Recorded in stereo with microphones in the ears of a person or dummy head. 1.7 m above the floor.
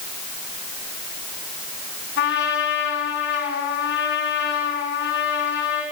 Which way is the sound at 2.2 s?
55° left (ahead or behind).